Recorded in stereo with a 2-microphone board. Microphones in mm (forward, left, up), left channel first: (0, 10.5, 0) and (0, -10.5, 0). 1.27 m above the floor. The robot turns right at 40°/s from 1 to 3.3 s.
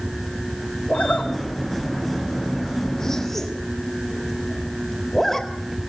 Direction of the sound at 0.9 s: 75° left (ahead or behind).